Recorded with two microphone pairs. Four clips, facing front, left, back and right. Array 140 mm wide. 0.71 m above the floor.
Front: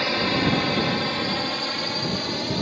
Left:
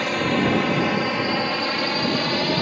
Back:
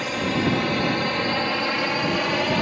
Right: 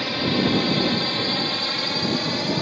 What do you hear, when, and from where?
0.0 s a drone: 60° left; by 2.6 s 150° left